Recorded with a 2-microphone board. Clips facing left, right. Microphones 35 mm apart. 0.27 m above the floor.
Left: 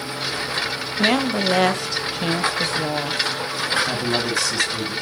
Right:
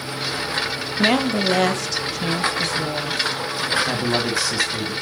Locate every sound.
1.0 s a woman speaking: centre (ahead or behind), 1.0 m; by 3.3 s 35° left (ahead or behind), 1.4 m
3.9 s a man speaking: 5° right (ahead or behind), 2 m